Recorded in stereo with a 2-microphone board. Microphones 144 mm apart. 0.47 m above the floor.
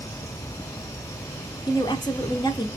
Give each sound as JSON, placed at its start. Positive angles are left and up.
{"t": 1.7, "sound": "a woman speaking", "side_deg": 30, "distance_m": 0.8}